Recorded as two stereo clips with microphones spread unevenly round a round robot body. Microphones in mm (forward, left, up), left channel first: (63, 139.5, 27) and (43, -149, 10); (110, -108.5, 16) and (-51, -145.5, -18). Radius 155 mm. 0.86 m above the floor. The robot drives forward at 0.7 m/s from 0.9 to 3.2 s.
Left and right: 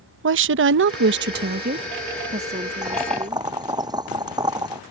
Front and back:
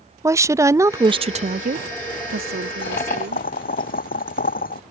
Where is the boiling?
15° right.